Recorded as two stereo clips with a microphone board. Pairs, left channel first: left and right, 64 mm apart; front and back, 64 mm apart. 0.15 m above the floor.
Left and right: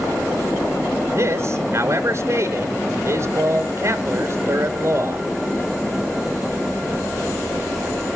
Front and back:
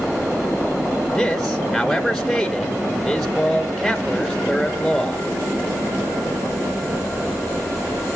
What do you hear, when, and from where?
1.1 s a man speaking: 90° right, 1.9 m